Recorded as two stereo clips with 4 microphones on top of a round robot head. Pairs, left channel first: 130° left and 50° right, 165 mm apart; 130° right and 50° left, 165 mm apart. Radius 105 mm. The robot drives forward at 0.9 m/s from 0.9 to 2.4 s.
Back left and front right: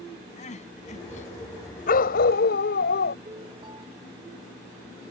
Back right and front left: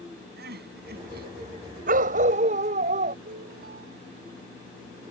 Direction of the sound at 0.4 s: 80° left.